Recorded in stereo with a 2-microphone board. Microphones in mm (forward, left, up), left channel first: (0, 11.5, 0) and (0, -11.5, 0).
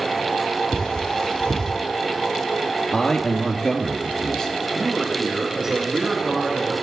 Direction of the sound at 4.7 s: 25° right (ahead or behind).